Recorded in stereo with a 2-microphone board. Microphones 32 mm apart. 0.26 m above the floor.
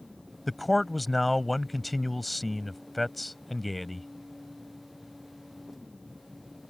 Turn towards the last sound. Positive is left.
turn(degrees=0)  # may be behind; listen again after turning